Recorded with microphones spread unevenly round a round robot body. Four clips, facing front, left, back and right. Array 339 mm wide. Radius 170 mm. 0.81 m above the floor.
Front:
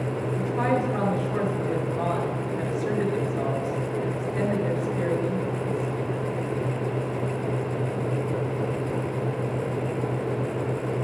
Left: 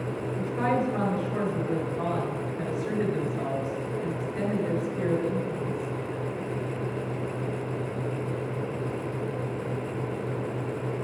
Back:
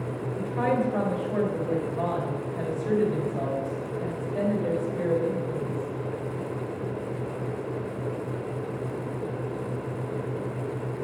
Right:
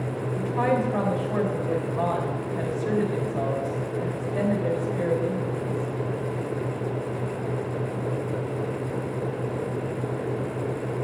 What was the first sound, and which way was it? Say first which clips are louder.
A woman speaking: right 3 dB, even; 80° right.